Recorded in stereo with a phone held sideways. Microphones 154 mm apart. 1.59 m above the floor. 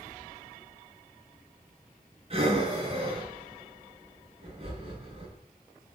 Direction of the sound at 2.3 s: 40° right (ahead or behind).